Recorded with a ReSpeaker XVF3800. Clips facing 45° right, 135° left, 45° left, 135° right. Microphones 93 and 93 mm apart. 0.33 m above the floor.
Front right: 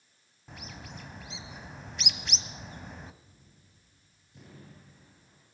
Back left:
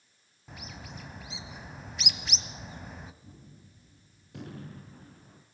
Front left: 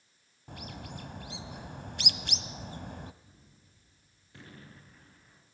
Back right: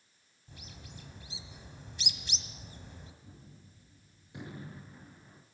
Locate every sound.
0.5 s a bird: 45° left, 1.3 m
3.2 s a gunshot: 155° left, 3 m